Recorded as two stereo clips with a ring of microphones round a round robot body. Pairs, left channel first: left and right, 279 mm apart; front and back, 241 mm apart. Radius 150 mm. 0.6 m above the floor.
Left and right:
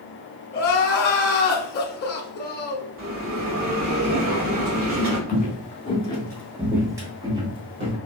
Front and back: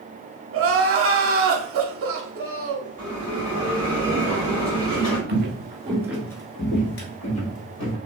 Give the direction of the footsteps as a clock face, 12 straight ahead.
7 o'clock.